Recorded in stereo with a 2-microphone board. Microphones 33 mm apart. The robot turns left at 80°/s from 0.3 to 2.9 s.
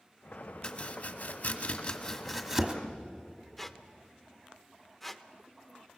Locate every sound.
0.6 s chopping: 40° left (ahead or behind), 1.4 m; by 2.7 s 30° right (ahead or behind), 1.4 m
3.6 s a squeak: 5° left (ahead or behind), 0.7 m